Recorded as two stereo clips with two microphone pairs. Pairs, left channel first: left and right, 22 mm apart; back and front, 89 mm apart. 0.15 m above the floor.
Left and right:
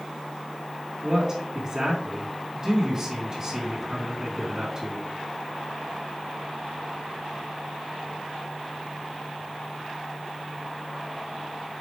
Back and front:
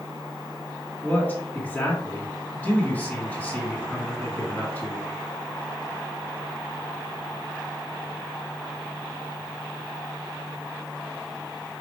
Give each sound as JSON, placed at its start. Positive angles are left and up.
{"t": 1.0, "sound": "a man speaking", "azimuth_deg": -125, "distance_m": 1.9}